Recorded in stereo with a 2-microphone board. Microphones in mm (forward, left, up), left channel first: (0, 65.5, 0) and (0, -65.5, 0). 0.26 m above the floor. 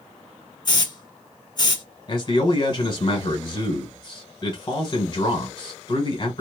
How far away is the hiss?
About 0.8 m.